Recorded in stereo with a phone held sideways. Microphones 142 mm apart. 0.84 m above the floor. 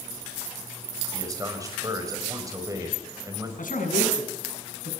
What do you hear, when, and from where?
1.1 s a man speaking: 25° right (ahead or behind), 4.5 m
3.6 s a man speaking: 85° left, 6.5 m